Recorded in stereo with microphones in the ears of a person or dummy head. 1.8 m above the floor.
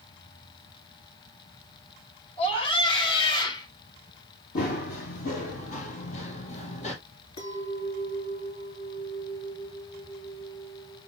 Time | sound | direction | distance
2.4 | a scream | 30° left (ahead or behind) | 4.5 m
4.5 | running footsteps | 45° left (ahead or behind) | 2.5 m
7.4 | a clink | 40° left (ahead or behind) | 2.5 m